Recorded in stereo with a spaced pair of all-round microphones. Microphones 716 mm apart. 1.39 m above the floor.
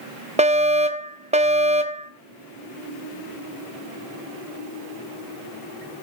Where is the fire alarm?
10° right (ahead or behind), 1.1 m.